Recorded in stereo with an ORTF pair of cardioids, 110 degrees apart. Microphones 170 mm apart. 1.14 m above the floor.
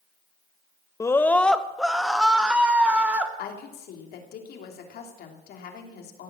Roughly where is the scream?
Ahead.